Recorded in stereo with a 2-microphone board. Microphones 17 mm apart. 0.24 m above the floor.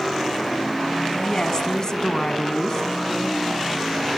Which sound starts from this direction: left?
A woman speaking, at 1.1 s.